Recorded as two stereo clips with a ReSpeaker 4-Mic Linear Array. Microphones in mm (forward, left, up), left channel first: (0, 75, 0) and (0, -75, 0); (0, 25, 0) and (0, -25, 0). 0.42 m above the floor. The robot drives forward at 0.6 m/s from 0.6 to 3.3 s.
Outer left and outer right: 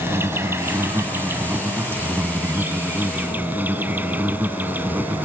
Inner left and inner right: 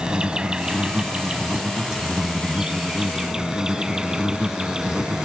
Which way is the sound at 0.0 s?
15° right (ahead or behind).